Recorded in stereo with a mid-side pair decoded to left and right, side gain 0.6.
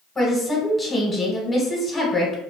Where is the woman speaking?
10° left, 0.9 m.